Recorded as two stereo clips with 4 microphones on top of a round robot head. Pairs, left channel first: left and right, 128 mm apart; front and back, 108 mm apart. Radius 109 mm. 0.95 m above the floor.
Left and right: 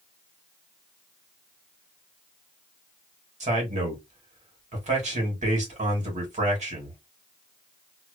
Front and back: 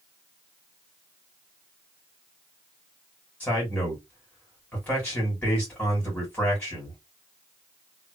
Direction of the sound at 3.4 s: 70° right.